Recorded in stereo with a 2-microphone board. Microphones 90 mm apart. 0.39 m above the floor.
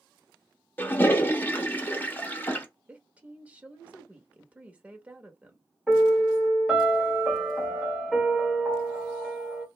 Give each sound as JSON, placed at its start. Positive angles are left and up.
{"t": 0.8, "sound": "a toilet flushing", "side_deg": 25, "distance_m": 0.6}
{"t": 2.9, "sound": "a woman speaking", "side_deg": -15, "distance_m": 0.8}
{"t": 5.9, "sound": "a piano", "side_deg": -5, "distance_m": 1.3}